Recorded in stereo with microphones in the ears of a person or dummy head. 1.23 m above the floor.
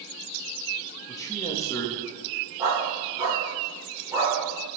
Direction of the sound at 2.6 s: 15° right (ahead or behind).